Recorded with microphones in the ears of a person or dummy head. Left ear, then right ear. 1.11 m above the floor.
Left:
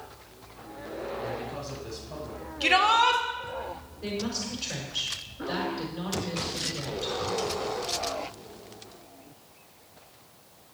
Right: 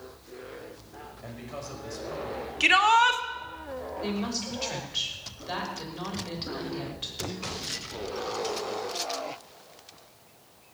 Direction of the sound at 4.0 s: 25° right (ahead or behind).